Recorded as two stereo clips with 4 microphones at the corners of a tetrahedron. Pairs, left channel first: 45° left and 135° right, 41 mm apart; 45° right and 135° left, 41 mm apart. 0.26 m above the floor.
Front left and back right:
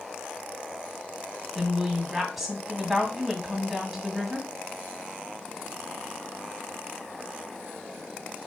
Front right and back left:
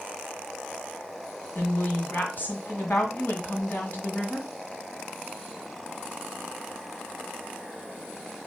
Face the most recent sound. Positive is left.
turn(degrees=-50)